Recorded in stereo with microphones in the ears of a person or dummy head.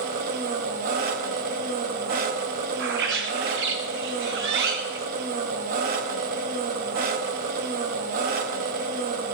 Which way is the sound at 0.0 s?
45° right (ahead or behind).